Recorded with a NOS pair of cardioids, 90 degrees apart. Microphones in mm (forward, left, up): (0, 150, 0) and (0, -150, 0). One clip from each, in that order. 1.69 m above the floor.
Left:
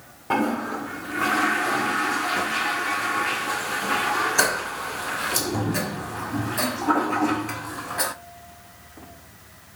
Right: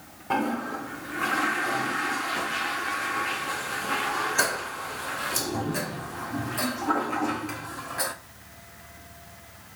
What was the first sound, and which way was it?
A toilet flushing, 15° left.